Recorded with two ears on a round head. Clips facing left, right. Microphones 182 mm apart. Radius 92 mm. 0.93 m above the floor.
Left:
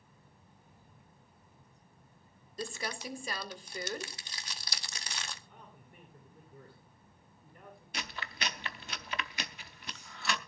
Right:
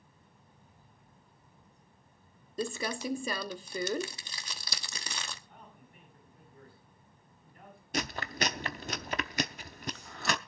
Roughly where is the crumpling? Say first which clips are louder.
Right 6 dB; right.